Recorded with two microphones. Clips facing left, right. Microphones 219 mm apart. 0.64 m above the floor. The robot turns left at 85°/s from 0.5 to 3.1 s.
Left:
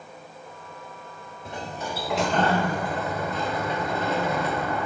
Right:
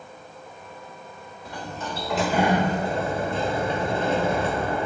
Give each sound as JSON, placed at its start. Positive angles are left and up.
{"t": 1.4, "sound": "a sliding door", "side_deg": 25, "distance_m": 1.3}